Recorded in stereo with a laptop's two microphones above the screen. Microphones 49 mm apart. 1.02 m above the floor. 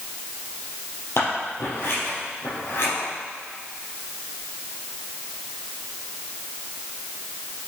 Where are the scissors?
55° left (ahead or behind), 4 m.